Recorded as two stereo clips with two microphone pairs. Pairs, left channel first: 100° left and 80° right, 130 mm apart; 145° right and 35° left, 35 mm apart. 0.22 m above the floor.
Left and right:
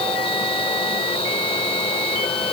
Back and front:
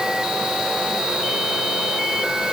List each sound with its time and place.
Only background noise.